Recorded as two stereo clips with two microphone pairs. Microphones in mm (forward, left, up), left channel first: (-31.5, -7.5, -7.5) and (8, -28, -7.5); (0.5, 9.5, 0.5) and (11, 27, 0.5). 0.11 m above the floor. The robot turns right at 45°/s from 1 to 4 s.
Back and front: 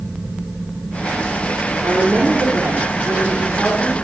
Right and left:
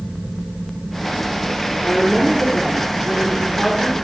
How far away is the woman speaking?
About 3 m.